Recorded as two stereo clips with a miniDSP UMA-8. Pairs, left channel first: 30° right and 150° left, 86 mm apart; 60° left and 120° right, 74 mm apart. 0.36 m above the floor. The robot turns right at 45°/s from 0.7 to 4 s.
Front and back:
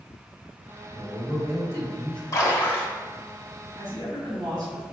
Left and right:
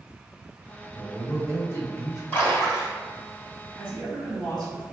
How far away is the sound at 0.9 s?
About 1.6 m.